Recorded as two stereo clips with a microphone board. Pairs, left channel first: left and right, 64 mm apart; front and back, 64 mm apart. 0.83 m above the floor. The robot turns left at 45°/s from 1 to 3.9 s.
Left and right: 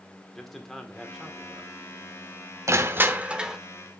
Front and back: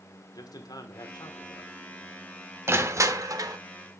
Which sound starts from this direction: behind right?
Crushing, at 2.7 s.